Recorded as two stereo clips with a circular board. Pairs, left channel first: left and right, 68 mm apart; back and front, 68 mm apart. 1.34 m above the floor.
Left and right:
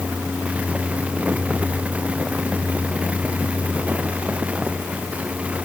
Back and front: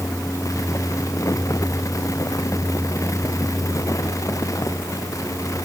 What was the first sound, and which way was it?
Only background noise.